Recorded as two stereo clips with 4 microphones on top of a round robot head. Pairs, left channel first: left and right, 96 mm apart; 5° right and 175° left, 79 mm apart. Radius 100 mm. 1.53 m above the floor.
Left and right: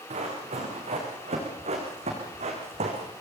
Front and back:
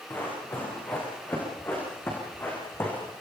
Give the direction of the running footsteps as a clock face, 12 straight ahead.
2 o'clock.